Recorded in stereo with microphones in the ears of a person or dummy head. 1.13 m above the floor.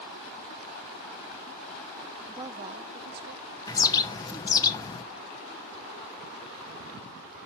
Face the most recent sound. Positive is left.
turn(degrees=25)  # may be behind; listen again after turning